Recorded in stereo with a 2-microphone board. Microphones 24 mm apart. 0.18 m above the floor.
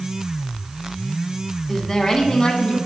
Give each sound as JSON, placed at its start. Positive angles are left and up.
{"t": 1.7, "sound": "a woman speaking", "side_deg": 0, "distance_m": 1.3}